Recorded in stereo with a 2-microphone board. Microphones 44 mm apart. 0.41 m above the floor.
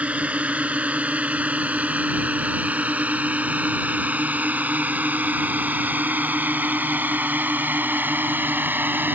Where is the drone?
35° right (ahead or behind); by 9.1 s 50° right (ahead or behind).